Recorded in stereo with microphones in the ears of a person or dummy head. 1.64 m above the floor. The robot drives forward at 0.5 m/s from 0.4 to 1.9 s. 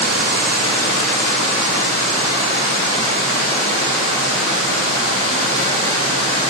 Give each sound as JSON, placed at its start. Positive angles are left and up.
{"t": 0.0, "sound": "running water", "side_deg": -55, "distance_m": 2.0}